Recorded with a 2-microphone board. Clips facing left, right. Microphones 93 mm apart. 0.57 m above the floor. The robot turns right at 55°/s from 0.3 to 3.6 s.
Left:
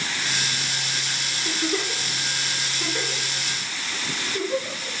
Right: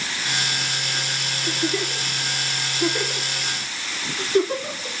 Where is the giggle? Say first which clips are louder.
Right 1 dB; 70° left (ahead or behind), 3 m; by 4.9 s 50° right (ahead or behind), 3 m.